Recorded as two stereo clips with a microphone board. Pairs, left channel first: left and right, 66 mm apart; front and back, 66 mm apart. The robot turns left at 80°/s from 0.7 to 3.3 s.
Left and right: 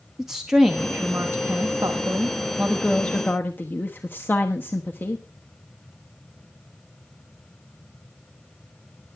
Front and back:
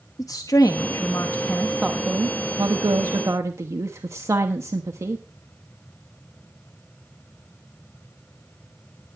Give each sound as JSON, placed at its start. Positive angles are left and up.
{"t": 0.2, "sound": "a woman speaking", "azimuth_deg": -10, "distance_m": 1.0}